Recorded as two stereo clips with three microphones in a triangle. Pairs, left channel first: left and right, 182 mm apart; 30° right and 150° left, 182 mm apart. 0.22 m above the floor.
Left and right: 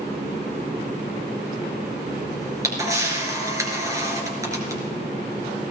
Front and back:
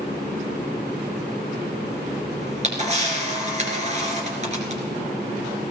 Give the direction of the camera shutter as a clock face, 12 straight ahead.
5 o'clock.